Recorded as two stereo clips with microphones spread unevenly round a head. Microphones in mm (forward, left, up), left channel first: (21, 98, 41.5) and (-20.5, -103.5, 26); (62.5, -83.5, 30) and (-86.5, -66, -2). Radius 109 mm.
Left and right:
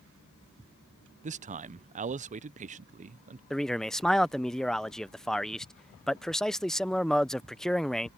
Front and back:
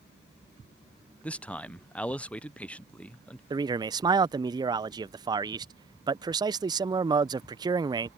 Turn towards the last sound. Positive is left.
turn(degrees=170)